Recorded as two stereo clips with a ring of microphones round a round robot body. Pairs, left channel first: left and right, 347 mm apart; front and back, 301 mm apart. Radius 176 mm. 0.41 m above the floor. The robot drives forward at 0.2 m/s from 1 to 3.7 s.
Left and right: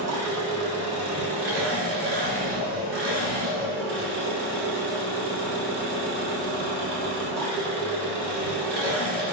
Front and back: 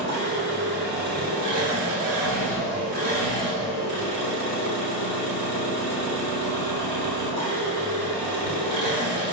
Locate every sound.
0.0 s an engine running: 130° right, 1.3 m; by 9.3 s 145° right, 1.7 m